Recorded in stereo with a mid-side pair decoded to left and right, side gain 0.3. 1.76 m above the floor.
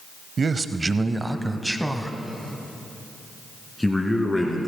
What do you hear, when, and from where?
0.4 s a man speaking: 55° right, 0.8 m; by 4.7 s 20° left, 2.5 m